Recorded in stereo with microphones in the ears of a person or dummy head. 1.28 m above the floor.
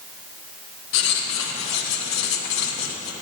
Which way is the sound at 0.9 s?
70° left (ahead or behind).